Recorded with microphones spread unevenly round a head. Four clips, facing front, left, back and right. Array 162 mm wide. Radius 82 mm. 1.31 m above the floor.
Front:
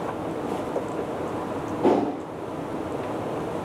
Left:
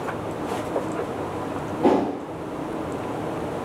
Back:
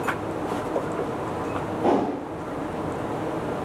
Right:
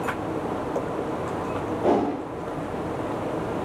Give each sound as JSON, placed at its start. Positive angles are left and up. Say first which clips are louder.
{"t": 1.8, "sound": "a whoosh", "louder": "left 2 dB, front 1 dB", "azimuth_deg": 75, "distance_m": 0.8}